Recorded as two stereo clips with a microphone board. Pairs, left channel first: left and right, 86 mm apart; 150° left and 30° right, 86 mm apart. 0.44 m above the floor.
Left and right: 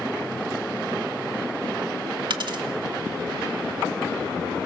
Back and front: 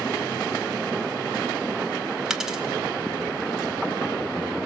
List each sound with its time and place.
2.3 s a dropped coin: 115° right, 1.3 m